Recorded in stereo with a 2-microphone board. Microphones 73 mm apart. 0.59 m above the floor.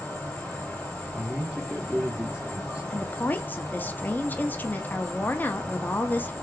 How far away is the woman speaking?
About 0.6 m.